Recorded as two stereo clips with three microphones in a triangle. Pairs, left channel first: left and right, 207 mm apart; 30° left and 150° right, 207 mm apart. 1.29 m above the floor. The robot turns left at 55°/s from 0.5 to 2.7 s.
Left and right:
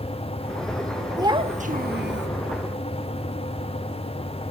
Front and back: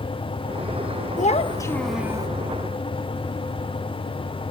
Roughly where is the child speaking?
Ahead.